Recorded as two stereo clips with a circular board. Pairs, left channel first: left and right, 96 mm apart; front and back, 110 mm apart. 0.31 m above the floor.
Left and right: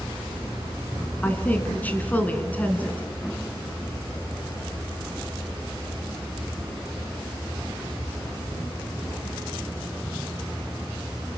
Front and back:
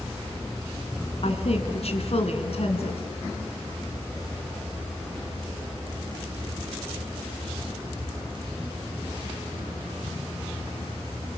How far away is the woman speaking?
About 3 m.